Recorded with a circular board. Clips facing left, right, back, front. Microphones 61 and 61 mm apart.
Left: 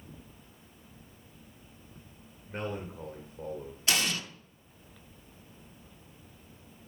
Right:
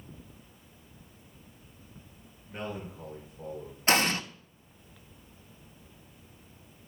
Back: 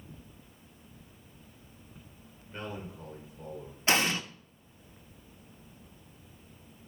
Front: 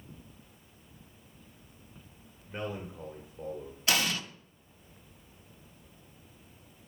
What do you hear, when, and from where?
2.5 s a man speaking: 65° left, 1.7 m
3.9 s an explosion: 130° right, 0.7 m